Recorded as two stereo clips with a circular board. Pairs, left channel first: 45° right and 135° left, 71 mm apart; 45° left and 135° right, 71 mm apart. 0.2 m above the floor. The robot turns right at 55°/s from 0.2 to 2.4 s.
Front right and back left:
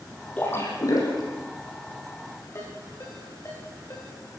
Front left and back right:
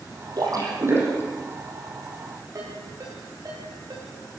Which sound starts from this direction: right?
A ringtone, at 2.5 s.